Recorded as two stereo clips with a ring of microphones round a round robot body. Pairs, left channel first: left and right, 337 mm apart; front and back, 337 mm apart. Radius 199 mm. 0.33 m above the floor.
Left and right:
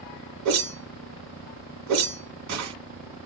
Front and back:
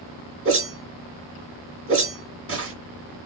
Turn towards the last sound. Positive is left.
turn(degrees=-130)